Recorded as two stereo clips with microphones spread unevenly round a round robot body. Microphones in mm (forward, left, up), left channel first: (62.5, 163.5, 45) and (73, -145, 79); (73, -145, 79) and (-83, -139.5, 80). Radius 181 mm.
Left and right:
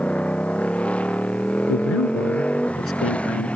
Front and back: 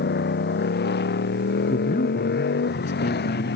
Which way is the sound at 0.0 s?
5° left.